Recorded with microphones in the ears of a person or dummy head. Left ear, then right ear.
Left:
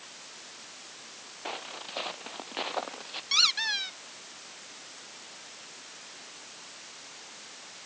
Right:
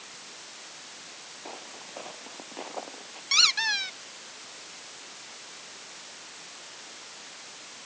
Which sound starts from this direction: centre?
A squeak, at 3.3 s.